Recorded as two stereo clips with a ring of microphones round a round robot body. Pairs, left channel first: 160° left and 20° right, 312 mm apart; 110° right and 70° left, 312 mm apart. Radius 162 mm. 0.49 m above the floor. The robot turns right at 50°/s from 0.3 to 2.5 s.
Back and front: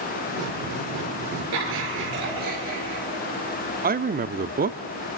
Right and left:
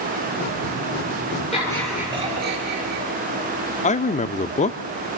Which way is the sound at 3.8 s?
60° right.